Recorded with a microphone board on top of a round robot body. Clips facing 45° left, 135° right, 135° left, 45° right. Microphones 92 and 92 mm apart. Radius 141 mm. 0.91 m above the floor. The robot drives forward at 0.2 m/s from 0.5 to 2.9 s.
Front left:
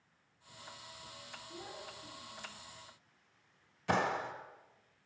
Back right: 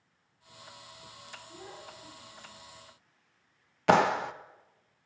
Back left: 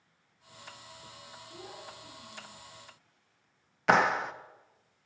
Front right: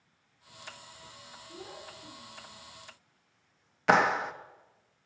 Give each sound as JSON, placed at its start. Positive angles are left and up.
{"t": 1.5, "sound": "a child speaking", "azimuth_deg": -50, "distance_m": 8.5}
{"t": 3.9, "sound": "a clap", "azimuth_deg": -135, "distance_m": 0.7}